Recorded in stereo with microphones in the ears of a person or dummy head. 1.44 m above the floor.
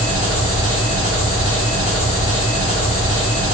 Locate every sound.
0.0 s an engine running: 35° left (ahead or behind), 1.7 m